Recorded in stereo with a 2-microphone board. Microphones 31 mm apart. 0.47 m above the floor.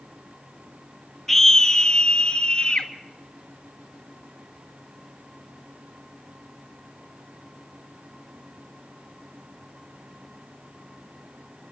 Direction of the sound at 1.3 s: 10° left (ahead or behind).